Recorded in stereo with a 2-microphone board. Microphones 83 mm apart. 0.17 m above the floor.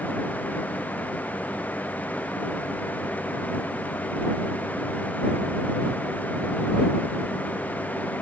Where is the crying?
I don't hear crying.